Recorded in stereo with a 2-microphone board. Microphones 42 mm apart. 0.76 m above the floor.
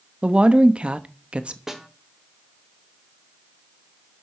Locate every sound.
0.2 s a woman speaking: 30° right (ahead or behind), 0.9 m
1.7 s a snare drum: 10° right (ahead or behind), 1.3 m